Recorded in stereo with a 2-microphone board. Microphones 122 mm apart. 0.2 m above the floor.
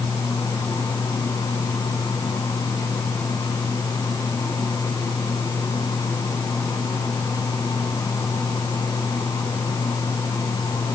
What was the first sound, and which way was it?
Only background noise.